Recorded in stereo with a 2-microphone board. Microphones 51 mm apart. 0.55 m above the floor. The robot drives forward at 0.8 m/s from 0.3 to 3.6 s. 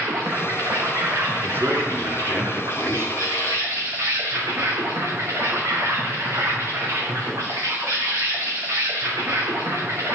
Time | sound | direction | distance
0.0 | an insect | 75° right (ahead or behind) | 4 m
1.4 | a man speaking | 40° right (ahead or behind) | 4 m